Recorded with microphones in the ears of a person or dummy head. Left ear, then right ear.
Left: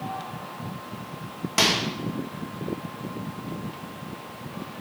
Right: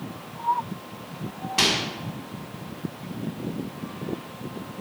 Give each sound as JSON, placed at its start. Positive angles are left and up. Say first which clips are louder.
{"t": 1.6, "sound": "a microwave", "louder": "even", "side_deg": 50, "distance_m": 1.2}